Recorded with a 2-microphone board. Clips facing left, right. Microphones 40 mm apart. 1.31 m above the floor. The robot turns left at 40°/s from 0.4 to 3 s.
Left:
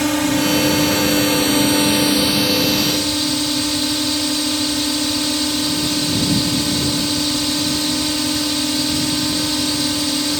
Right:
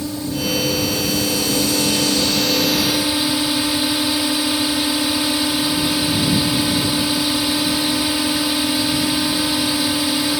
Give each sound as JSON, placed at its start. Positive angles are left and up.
{"t": 0.0, "sound": "a drone", "azimuth_deg": 90}